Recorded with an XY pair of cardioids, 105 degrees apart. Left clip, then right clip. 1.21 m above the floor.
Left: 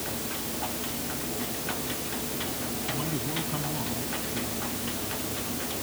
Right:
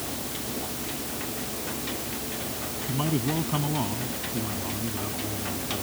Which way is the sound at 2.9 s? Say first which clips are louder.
Right 5 dB; 45° right.